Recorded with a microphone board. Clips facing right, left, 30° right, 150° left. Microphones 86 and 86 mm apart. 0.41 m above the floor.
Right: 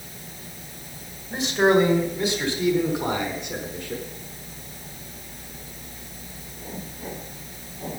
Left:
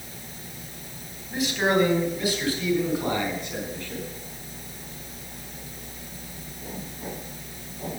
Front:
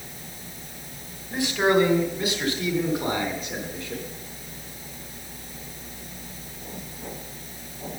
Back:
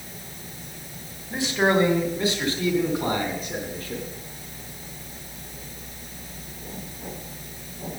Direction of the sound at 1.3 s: 145° right.